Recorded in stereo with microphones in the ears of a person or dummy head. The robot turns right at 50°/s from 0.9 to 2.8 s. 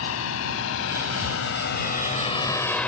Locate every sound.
0.0 s a drone: 80° left; by 2.9 s 5° left (ahead or behind)